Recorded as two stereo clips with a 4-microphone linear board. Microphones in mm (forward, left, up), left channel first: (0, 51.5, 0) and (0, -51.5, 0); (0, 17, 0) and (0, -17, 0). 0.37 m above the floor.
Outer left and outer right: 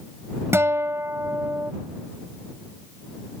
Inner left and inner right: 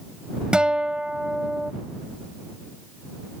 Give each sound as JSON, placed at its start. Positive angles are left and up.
{"t": 0.5, "sound": "a guitar", "side_deg": -25}